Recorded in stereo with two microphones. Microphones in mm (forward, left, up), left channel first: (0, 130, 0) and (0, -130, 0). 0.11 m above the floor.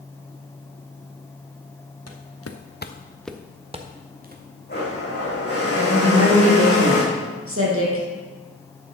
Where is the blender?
40° left (ahead or behind), 4.5 m.